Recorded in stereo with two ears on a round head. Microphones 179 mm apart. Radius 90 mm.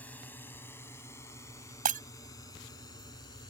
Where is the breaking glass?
40° right (ahead or behind).